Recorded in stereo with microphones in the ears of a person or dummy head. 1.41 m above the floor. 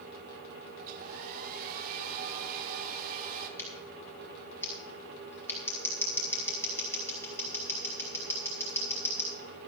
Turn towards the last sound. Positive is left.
turn(degrees=10)  # may be behind; listen again after turning